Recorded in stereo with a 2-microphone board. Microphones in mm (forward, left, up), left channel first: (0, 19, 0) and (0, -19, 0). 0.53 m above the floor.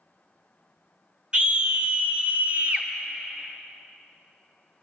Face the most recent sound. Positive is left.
turn(degrees=-40)  # may be behind; listen again after turning